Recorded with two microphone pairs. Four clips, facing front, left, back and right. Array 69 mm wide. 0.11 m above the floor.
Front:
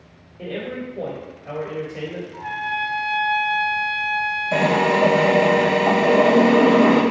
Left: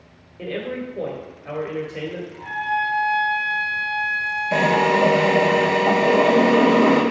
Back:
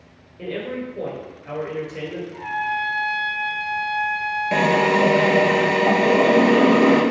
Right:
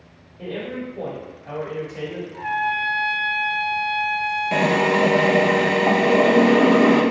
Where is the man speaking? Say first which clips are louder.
Left 1 dB, back 1 dB; 110° left, 1.4 m.